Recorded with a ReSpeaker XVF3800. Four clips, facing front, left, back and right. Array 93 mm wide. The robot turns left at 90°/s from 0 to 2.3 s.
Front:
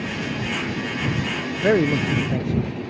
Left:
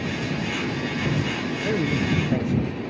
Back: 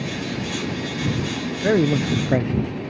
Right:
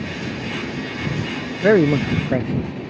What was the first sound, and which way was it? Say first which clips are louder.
A man speaking: right 11 dB, even; 75° right.